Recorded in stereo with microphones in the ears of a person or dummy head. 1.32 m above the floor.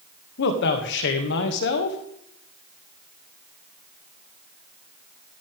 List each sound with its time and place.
0.4 s a man speaking: 60° left (ahead or behind), 2.0 m